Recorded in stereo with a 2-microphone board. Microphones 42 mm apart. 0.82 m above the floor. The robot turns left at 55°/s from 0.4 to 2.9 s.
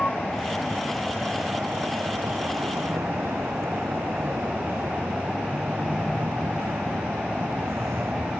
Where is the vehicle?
25° left (ahead or behind); by 8.4 s 80° right.